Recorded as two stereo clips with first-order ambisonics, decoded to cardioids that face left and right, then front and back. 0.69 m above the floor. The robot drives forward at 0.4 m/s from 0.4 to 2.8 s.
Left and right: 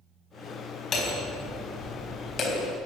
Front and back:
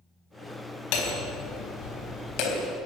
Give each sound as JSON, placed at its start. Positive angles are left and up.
{"t": 0.9, "sound": "hammering", "azimuth_deg": 25, "distance_m": 4.5}